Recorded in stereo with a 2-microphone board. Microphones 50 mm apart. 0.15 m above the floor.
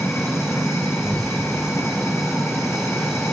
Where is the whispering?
15° left (ahead or behind), 6 m.